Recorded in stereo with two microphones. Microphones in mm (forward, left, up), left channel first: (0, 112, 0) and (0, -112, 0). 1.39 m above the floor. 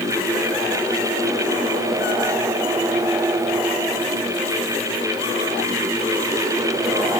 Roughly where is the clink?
I don't hear a clink.